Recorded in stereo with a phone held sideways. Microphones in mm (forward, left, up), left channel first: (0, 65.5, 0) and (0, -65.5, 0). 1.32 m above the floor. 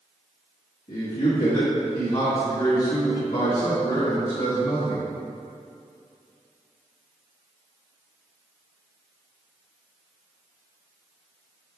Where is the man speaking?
80° left, 1.5 m.